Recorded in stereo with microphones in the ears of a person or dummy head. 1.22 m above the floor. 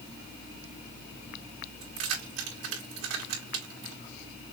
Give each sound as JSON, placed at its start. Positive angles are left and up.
{"t": 1.8, "sound": "keys jangling", "side_deg": -75, "distance_m": 2.0}